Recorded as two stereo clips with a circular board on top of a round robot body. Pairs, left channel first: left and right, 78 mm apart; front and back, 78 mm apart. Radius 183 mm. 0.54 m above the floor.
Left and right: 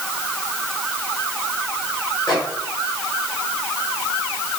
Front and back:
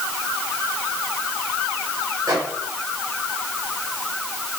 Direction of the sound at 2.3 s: 130° left.